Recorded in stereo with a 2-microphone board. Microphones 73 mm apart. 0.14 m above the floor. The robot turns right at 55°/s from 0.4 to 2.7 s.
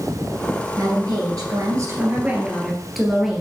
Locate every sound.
0.8 s a woman speaking: 110° right, 2 m; by 3.4 s 5° right, 2 m